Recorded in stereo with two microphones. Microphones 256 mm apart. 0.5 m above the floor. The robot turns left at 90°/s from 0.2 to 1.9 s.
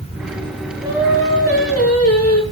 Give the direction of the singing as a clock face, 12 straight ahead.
5 o'clock.